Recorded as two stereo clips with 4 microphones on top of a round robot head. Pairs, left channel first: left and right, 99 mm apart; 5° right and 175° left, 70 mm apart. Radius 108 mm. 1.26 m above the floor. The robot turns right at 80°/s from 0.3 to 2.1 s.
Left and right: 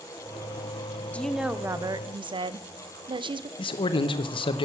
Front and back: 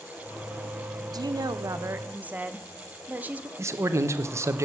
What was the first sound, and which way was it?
A woman speaking, 165° left.